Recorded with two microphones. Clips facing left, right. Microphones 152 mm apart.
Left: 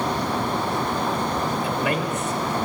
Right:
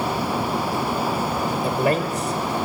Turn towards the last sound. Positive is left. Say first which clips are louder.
# right 3 dB
turn(degrees=-40)  # may be behind; listen again after turning